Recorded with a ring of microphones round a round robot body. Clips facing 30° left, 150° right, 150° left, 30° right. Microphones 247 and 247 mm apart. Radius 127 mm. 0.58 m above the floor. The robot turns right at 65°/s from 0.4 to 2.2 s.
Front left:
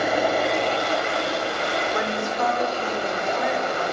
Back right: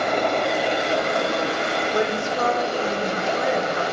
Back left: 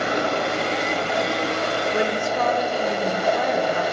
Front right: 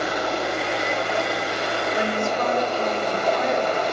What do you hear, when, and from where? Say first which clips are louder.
0.0 s running water: even, back left 2 dB; 115° left, 3 m; by 3.9 s 130° right, 3 m
1.9 s a woman speaking: back right 3 dB, even; 145° left, 2.5 m; by 3.8 s 165° left, 2.5 m